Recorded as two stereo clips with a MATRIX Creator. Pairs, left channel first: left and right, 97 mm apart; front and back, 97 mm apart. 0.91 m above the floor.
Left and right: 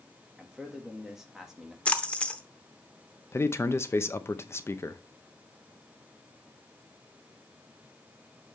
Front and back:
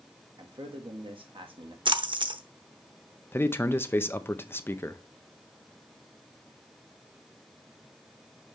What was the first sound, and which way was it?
A man speaking, 175° right.